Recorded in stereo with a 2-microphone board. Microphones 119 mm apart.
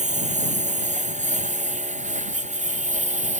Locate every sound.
0.0 s a lawn mower: 90° right; by 3.4 s 85° right